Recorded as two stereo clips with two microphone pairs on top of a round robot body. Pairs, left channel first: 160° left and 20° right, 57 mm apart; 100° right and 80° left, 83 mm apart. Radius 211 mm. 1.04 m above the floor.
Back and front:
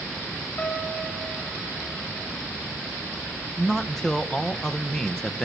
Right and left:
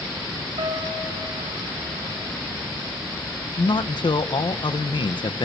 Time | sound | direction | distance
0.6 | a piano | 110° left | 3.5 m
3.6 | a man speaking | 120° right | 1.0 m